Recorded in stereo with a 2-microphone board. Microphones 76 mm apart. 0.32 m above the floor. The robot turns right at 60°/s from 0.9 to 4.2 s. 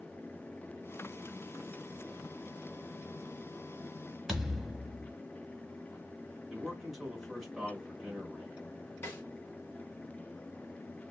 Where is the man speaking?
Centre (ahead or behind), 1.4 m.